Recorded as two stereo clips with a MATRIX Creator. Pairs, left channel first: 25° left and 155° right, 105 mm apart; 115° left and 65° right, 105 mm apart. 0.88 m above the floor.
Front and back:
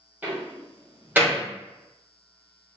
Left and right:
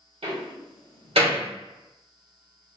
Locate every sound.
0.2 s a door slam: 85° right, 1.8 m